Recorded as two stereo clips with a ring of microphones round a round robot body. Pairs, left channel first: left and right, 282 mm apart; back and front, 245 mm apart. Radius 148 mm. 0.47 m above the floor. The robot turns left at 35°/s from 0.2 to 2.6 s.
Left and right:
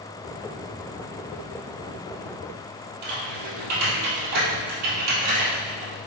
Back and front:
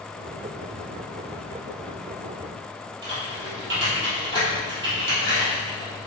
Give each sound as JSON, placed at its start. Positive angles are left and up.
{"t": 3.0, "sound": "typing on a keyboard", "azimuth_deg": -55, "distance_m": 3.0}